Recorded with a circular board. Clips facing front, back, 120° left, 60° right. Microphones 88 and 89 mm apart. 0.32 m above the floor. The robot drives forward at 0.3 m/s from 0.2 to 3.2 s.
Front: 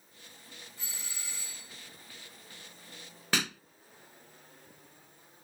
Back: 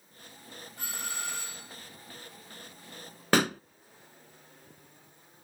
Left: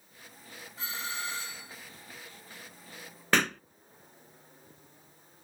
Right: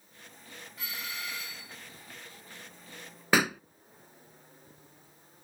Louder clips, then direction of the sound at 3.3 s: Back 9 dB, right 2 dB; 140° right.